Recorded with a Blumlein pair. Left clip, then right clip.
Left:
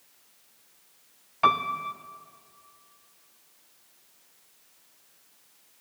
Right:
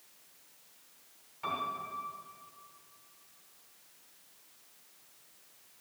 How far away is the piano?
About 0.7 m.